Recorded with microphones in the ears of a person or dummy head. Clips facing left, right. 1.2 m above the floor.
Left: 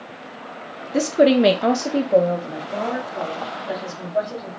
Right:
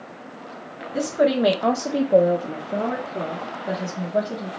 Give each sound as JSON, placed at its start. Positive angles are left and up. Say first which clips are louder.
{"t": 0.9, "sound": "a woman speaking", "louder": "left 5 dB", "side_deg": 55, "distance_m": 0.7}